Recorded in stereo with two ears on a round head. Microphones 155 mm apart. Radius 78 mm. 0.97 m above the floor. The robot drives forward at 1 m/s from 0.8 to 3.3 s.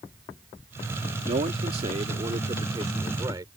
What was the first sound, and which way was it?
A man speaking, 45° right (ahead or behind).